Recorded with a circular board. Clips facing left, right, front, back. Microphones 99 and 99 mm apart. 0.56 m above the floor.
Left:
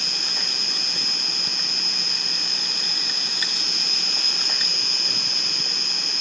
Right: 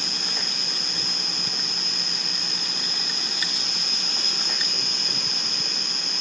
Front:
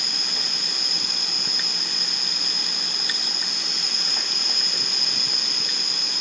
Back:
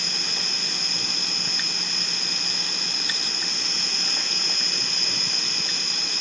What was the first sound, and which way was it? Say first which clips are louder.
An insect: right 1 dB, back 1 dB; 75° left.